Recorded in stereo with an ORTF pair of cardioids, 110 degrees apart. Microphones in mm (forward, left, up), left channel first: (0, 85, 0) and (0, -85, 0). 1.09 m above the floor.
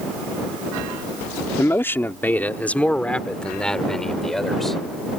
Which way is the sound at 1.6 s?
15° left.